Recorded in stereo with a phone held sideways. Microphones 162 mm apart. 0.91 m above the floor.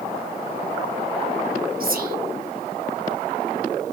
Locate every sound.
1.8 s whispering: 65° right (ahead or behind), 1.3 m